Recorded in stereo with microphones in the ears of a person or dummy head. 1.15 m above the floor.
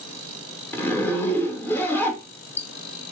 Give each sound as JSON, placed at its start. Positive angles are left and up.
{"t": 0.7, "sound": "a zipper", "side_deg": 20, "distance_m": 0.8}